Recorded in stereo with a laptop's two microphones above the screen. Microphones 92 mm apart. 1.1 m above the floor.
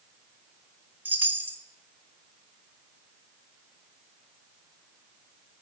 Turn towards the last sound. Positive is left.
turn(degrees=-20)  # may be behind; listen again after turning